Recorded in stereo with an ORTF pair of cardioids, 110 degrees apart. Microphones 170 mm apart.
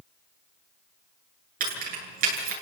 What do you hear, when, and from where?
1.6 s keys jangling: 55° right, 9 m